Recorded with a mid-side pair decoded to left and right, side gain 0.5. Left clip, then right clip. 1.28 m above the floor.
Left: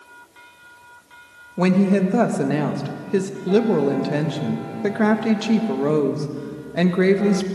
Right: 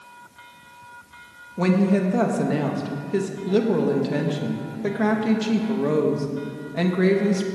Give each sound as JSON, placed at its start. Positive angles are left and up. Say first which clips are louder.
{"t": 1.6, "sound": "a woman speaking", "louder": "left 2 dB", "azimuth_deg": 25, "distance_m": 1.7}